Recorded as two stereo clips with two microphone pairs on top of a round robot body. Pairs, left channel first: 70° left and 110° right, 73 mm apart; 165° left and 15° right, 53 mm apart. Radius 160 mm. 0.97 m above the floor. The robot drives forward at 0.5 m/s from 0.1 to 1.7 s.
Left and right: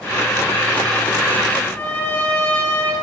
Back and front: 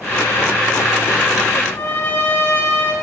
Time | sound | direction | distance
1.6 | a trumpet | 130° left | 3 m